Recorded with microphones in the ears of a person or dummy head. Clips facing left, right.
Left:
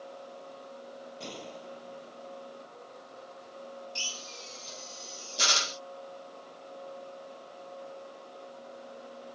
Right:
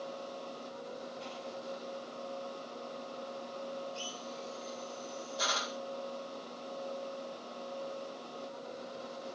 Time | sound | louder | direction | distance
1.2 | a gunshot | even | 70° left (ahead or behind) | ?
4.0 | a drill | right 4 dB | 35° left (ahead or behind) | ?